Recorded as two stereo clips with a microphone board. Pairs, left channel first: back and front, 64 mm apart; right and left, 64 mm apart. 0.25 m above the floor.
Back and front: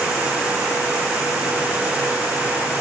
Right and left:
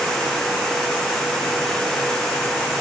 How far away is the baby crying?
I don't hear a baby crying.